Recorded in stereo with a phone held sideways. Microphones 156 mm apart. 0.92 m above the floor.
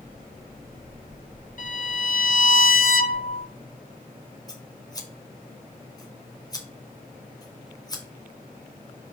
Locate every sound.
1.6 s a violin: 60° left (ahead or behind), 1.2 m
4.5 s scissors: 25° left (ahead or behind), 2 m